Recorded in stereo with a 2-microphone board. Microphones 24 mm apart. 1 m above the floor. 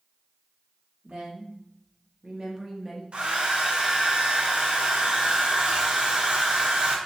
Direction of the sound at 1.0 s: 60° right (ahead or behind).